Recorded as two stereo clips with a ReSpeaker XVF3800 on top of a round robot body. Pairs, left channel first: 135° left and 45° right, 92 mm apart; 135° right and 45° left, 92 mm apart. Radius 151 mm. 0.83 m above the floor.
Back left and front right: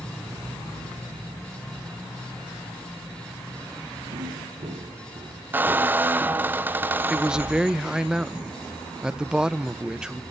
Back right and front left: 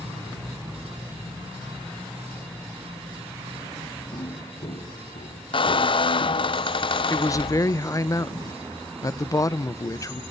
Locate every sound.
4.1 s footsteps: 80° right, 4 m; by 6.5 s 120° right, 6 m
5.5 s a squeak: 115° right, 0.7 m
7.1 s a man speaking: 120° right, 0.9 m